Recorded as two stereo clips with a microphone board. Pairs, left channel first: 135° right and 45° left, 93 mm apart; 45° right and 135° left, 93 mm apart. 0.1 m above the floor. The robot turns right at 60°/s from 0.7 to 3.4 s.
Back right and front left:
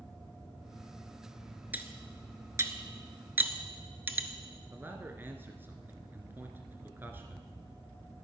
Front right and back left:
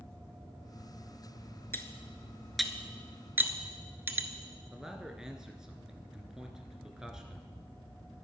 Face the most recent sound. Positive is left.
turn(degrees=60)